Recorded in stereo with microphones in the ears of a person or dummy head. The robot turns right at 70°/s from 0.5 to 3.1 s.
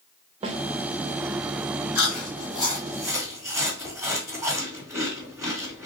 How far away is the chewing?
About 2.5 m.